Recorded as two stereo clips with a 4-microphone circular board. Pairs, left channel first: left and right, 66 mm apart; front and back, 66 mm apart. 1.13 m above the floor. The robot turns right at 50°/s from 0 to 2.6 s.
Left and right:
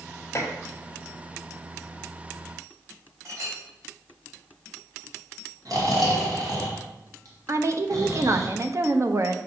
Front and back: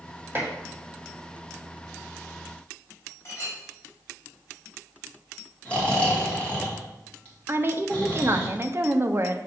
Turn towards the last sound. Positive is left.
turn(degrees=-130)